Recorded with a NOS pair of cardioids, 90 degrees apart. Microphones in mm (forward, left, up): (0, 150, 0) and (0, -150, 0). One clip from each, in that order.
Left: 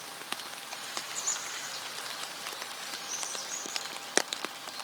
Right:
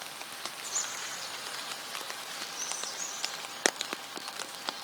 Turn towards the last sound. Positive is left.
No sound to turn to.